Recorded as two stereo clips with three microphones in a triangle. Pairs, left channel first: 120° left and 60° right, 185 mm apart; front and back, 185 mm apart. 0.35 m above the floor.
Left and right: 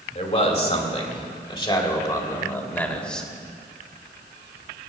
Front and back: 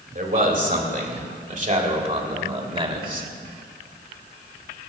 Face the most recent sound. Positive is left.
turn(degrees=-155)